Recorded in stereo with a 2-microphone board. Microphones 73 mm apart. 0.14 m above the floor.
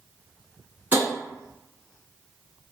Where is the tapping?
25° right (ahead or behind), 1.4 m.